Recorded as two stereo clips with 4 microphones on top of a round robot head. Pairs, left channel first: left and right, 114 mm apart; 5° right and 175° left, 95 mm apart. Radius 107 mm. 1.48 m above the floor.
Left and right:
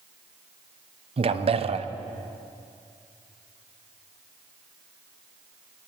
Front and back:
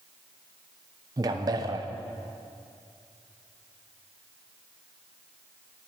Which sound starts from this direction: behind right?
A man speaking, at 1.2 s.